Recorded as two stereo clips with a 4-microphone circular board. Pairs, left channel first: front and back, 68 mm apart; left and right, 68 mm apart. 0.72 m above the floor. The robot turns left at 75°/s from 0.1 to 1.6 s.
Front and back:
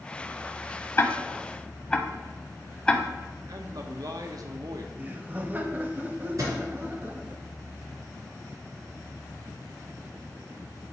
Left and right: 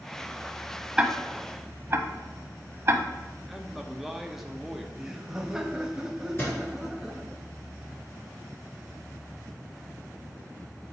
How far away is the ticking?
About 0.6 m.